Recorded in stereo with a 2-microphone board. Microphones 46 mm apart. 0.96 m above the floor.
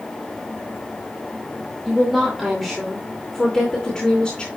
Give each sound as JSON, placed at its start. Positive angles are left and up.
{"t": 1.9, "sound": "a woman speaking", "side_deg": -10, "distance_m": 2.5}